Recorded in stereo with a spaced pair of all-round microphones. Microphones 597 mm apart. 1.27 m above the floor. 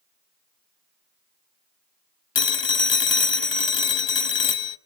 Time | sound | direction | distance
2.4 | a phone ringing | 45° left (ahead or behind) | 0.7 m